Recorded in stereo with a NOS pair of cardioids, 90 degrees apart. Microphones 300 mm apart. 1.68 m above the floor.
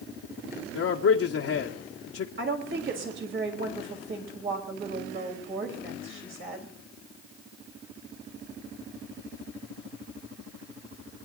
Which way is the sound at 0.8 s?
55° left.